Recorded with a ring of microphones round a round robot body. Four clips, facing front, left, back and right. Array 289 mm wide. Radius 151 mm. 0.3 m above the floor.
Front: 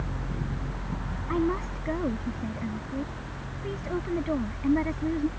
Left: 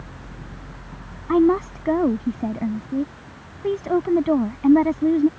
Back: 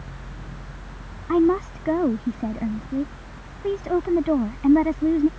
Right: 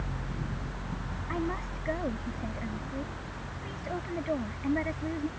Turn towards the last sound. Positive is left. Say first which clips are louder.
# left 17 dB, back 9 dB
turn(degrees=115)